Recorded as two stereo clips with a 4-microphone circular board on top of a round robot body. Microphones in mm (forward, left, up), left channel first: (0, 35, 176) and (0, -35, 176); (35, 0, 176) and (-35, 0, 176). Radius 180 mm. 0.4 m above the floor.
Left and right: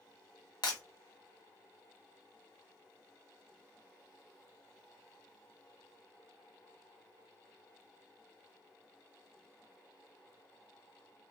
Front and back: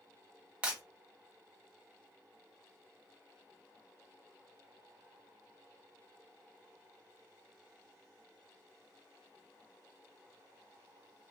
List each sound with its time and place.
0.6 s breaking glass: 105° left, 1.0 m